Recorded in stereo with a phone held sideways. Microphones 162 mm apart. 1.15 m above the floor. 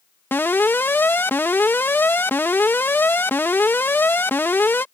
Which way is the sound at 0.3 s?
15° left (ahead or behind).